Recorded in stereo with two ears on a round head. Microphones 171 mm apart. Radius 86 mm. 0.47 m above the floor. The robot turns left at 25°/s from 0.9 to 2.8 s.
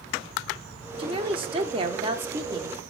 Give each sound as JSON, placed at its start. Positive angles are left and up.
{"t": 1.0, "sound": "a woman speaking", "side_deg": -25, "distance_m": 0.7}